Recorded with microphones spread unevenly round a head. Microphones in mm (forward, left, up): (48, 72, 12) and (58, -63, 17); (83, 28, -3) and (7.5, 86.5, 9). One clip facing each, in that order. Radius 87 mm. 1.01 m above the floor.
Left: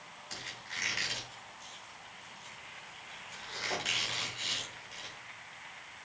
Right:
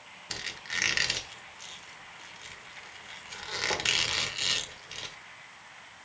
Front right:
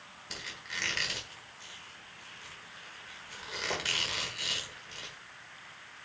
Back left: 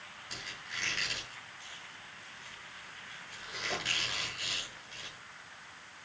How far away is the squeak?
About 1.2 m.